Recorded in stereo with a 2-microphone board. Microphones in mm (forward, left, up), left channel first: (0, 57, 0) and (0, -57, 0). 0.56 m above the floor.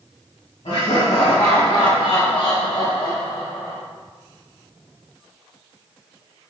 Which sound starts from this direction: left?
Laughter, at 0.7 s.